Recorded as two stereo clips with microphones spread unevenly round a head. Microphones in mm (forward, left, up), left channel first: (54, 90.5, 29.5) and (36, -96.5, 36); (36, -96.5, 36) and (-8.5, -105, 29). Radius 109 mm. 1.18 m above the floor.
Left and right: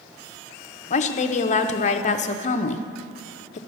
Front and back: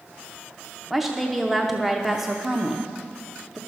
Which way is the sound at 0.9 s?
115° left.